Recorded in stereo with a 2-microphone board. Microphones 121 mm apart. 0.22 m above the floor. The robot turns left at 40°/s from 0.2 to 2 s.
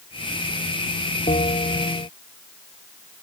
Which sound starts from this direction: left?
A bell, at 1.3 s.